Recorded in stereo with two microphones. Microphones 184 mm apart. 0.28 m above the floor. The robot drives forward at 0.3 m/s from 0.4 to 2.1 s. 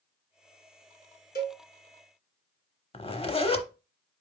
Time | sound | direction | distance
1.4 | a cowbell | 55° left (ahead or behind) | 1.0 m
2.9 | a zipper | 30° left (ahead or behind) | 0.6 m